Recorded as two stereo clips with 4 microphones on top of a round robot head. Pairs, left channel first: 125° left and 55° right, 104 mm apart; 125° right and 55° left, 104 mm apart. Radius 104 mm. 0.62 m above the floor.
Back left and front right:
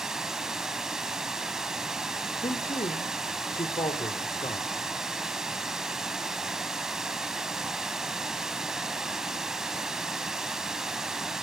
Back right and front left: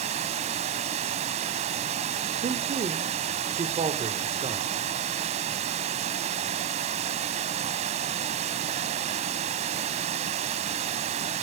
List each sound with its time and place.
0.0 s running water: 30° left, 1.1 m
2.4 s a man speaking: 80° left, 2 m